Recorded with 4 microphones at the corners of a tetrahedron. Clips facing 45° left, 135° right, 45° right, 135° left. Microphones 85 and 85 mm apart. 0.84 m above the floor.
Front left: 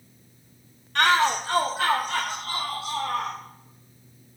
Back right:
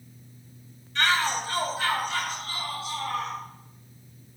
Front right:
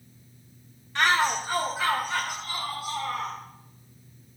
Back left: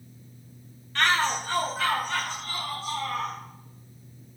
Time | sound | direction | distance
0.9 | a shout | 25° left | 0.7 m